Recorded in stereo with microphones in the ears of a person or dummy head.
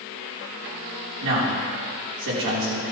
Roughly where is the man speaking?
Right.